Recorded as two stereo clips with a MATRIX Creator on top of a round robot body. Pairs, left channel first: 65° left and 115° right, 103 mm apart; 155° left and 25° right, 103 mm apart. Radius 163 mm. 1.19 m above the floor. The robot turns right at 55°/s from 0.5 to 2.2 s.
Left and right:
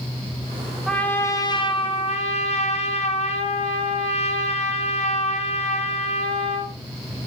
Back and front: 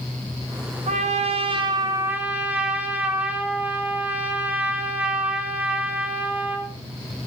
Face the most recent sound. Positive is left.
turn(degrees=55)